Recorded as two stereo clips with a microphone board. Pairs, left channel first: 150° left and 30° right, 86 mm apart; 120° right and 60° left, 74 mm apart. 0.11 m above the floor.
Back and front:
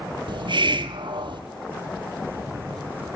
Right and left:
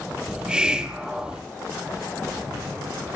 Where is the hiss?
20° right, 0.7 m.